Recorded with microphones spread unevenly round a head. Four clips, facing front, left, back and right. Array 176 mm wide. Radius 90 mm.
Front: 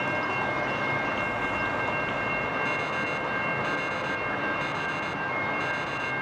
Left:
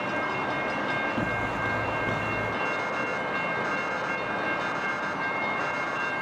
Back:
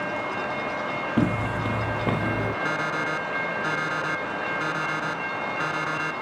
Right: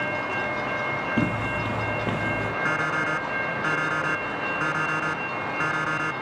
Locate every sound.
1.2 s footsteps: 160° right; by 2.5 s 165° right
2.6 s an alarm clock: 125° right